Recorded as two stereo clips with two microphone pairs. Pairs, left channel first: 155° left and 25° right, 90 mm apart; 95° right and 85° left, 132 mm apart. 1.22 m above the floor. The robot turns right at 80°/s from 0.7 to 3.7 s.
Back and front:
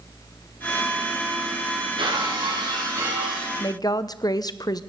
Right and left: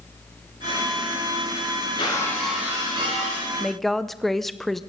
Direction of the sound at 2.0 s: 50° right.